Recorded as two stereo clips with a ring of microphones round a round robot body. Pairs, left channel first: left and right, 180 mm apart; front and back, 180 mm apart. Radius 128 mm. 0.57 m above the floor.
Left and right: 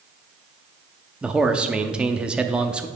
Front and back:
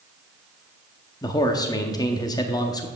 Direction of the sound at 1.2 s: 15° right.